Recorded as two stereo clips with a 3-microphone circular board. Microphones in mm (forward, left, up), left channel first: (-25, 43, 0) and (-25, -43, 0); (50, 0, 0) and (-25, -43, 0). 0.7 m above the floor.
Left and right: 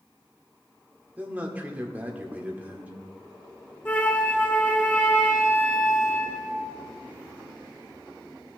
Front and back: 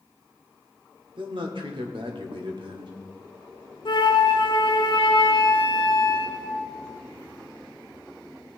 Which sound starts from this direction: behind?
A man speaking, at 1.2 s.